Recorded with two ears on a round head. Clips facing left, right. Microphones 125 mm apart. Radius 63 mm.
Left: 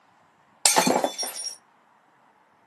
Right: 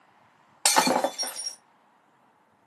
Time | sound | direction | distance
0.7 | breaking glass | 25° left (ahead or behind) | 0.7 m